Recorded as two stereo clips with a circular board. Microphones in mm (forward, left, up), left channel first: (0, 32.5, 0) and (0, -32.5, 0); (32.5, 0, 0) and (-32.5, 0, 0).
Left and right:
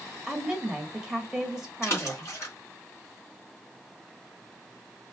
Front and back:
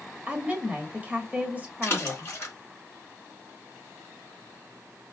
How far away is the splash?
About 3 m.